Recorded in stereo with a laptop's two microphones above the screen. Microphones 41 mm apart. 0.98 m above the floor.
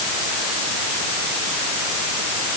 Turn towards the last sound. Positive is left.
No sound to turn to.